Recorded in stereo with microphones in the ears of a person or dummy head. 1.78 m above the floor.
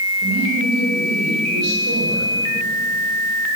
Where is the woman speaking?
55° right (ahead or behind), 8.5 m.